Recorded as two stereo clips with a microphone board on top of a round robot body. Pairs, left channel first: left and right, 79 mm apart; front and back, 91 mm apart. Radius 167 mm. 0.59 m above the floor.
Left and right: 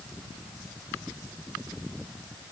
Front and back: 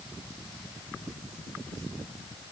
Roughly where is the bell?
I don't hear a bell.